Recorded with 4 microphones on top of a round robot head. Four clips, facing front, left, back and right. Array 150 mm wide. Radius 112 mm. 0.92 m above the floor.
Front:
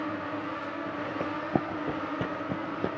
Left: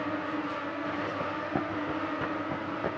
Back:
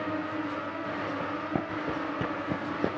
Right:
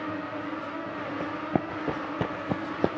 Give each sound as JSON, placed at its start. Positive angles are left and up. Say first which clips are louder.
{"t": 1.2, "sound": "running footsteps", "louder": "right 2 dB, front 2 dB", "azimuth_deg": -20, "distance_m": 0.9}